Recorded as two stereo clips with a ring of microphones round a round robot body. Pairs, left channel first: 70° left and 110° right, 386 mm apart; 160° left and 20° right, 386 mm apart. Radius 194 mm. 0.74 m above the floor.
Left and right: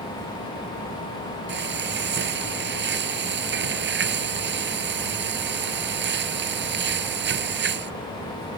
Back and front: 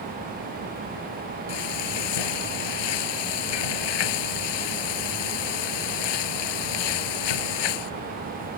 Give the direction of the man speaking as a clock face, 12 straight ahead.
I don't hear a man speaking.